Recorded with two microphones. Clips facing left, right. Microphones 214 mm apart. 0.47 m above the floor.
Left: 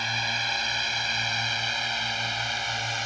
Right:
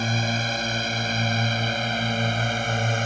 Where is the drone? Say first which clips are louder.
Right 10 dB; 55° right (ahead or behind); by 3.1 s 60° right (ahead or behind).